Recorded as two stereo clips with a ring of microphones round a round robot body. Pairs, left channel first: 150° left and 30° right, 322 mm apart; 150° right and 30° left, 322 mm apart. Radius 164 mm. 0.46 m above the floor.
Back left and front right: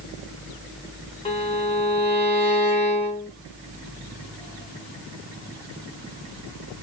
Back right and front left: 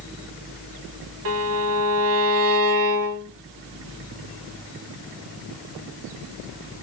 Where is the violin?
75° left, 0.7 m.